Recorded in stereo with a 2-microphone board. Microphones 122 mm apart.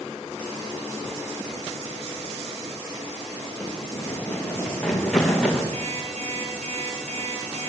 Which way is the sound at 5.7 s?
55° right (ahead or behind).